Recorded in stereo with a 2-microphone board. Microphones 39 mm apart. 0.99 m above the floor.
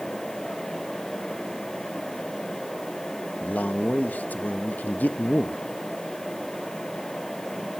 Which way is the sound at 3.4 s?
45° left (ahead or behind).